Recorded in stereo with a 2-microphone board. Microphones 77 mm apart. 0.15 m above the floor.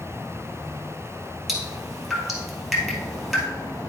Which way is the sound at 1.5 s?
5° right (ahead or behind).